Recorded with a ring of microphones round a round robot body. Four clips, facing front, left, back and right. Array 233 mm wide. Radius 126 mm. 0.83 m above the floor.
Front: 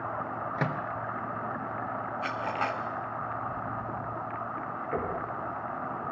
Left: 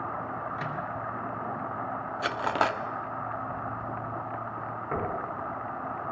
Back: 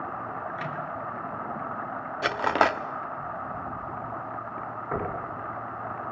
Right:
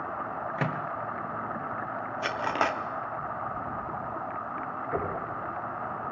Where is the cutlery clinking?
175° left, 1.0 m.